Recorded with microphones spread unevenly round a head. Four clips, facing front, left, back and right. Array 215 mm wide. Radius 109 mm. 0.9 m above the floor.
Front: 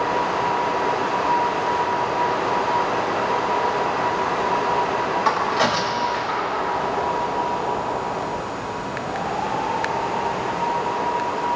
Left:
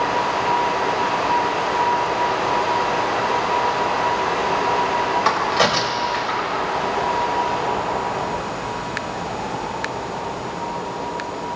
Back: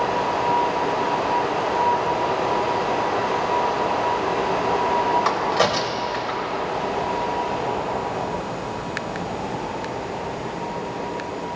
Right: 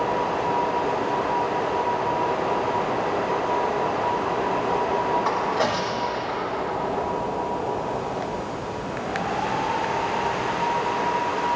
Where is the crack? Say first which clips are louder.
Left 4 dB, even; 115° left, 4 m.